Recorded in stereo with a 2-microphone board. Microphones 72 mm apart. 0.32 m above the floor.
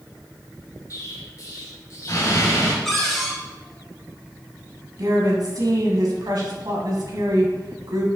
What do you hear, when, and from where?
0.9 s an explosion: 50° left (ahead or behind), 1.9 m
2.9 s a cupboard door: 5° left (ahead or behind), 1.9 m
5.0 s a woman speaking: 55° right (ahead or behind), 2.0 m